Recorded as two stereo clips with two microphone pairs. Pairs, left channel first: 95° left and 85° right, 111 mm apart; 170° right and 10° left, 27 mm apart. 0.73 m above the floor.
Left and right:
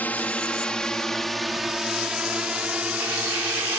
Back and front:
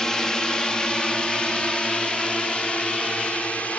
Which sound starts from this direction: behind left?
A drone, at 0.0 s.